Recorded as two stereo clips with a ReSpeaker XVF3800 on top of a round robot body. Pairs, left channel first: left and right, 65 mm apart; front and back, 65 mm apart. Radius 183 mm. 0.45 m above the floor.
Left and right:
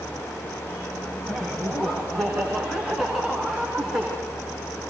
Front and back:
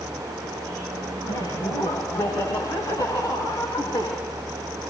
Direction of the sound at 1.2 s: Straight ahead.